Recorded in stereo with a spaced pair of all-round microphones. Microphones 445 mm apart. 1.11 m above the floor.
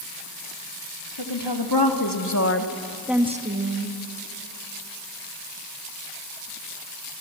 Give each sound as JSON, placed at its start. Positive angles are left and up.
{"t": 1.2, "sound": "a woman speaking", "side_deg": 70, "distance_m": 3.0}